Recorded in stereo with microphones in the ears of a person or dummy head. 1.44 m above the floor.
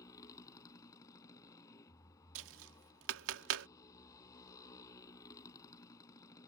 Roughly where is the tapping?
Right.